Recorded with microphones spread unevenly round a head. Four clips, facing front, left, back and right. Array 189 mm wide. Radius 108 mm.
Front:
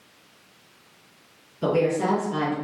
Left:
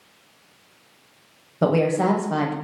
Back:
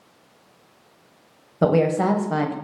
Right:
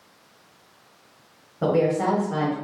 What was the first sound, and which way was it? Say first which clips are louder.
A woman speaking: left 1 dB, back 4 dB; 135° left.